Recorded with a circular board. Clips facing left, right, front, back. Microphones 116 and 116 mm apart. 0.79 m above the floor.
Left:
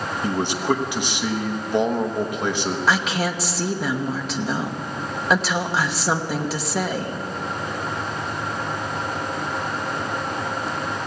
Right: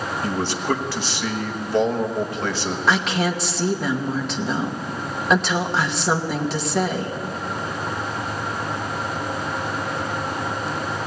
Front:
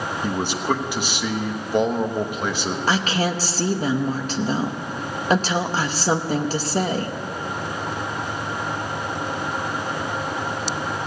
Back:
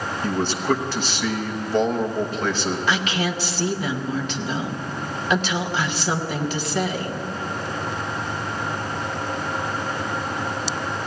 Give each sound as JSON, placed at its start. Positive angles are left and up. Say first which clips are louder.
{"t": 0.2, "sound": "a man speaking", "louder": "left 2 dB, back 2 dB", "azimuth_deg": 55, "distance_m": 1.0}
{"t": 2.9, "sound": "a woman speaking", "louder": "right 3 dB, front 5 dB", "azimuth_deg": 5, "distance_m": 1.0}